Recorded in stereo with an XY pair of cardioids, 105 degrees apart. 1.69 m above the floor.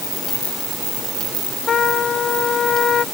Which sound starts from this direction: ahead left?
A trumpet, at 1.7 s.